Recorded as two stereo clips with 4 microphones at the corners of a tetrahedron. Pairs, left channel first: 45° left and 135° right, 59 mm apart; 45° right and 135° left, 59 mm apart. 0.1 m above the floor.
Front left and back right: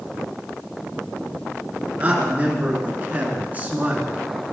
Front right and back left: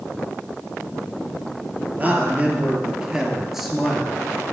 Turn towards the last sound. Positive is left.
turn(degrees=-115)